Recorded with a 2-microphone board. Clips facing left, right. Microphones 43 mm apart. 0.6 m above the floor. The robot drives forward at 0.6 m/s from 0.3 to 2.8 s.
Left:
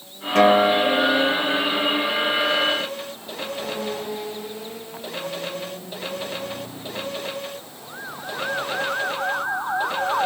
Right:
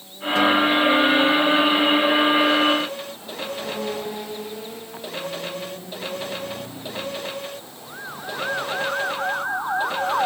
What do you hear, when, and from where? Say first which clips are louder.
0.3 s a guitar: left 2 dB; 70° left (ahead or behind); by 2.0 s 65° left (ahead or behind)